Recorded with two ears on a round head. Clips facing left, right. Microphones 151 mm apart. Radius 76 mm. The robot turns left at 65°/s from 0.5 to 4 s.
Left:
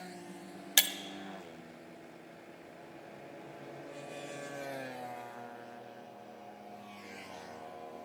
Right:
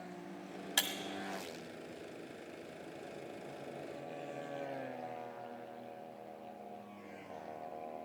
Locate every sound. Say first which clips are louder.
0.8 s breaking glass: left 2 dB; 30° left (ahead or behind), 0.5 m; by 0.9 s 20° left (ahead or behind), 0.5 m